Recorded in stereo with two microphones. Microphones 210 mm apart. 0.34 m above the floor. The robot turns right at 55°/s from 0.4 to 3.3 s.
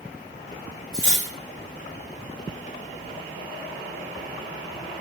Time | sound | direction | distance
0.9 | cutlery clinking | 20° left (ahead or behind) | 1.0 m